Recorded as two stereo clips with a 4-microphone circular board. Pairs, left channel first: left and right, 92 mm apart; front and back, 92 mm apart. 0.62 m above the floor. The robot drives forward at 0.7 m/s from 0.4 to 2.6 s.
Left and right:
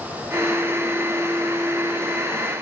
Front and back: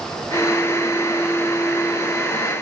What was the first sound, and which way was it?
Only background noise.